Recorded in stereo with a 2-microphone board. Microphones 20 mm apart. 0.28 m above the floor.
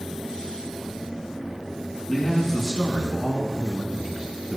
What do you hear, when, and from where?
2.1 s a man speaking: 10° left (ahead or behind), 2.5 m; by 4.6 s 30° right (ahead or behind), 2.5 m